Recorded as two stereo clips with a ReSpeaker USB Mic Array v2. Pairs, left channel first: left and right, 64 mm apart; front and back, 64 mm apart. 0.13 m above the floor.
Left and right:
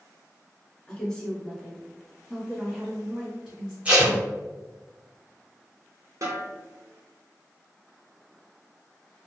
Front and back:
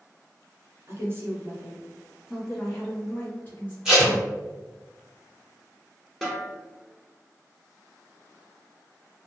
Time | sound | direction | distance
0.9 | a woman speaking | 160° left | 1.4 m
3.9 | tape being pulled | 115° right | 1.5 m
6.2 | a snare drum | 90° right | 1.6 m